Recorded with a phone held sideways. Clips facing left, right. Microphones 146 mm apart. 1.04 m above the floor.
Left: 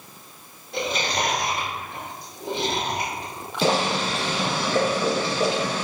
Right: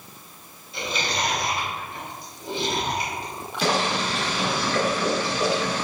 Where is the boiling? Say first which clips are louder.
Left 2 dB; 25° left (ahead or behind), 2 m.